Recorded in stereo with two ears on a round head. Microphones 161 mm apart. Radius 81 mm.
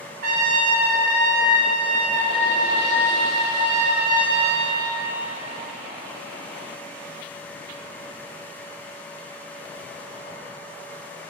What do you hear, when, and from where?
0.2 s a trumpet: 50° right (ahead or behind), 2 m